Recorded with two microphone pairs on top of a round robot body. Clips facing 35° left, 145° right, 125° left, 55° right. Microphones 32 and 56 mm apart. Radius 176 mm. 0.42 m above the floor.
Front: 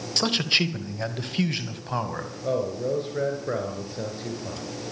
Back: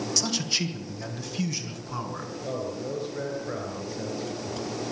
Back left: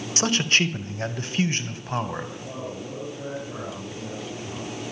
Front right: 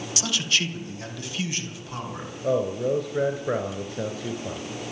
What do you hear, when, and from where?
0.2 s a man speaking: 80° left, 2.5 m; by 2.3 s 75° left, 4 m
2.4 s a man speaking: 35° right, 3.5 m